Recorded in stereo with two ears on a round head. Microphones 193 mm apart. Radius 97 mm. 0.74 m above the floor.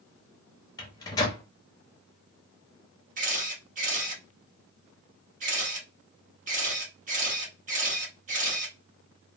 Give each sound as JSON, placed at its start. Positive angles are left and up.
{"t": 0.8, "sound": "a microwave", "side_deg": 15, "distance_m": 0.6}
{"t": 3.2, "sound": "a camera shutter", "side_deg": -35, "distance_m": 1.2}